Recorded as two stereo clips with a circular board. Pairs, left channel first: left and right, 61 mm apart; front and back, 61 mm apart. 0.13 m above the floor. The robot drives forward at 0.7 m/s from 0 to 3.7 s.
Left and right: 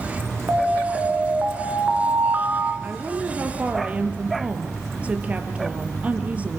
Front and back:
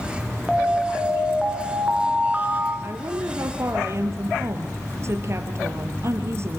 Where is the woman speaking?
150° right, 3 m; by 6.6 s 155° right, 3.5 m.